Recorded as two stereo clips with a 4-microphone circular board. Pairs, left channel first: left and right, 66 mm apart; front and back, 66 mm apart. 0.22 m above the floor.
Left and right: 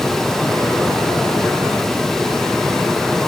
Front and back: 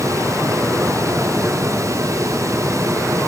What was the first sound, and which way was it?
Only background noise.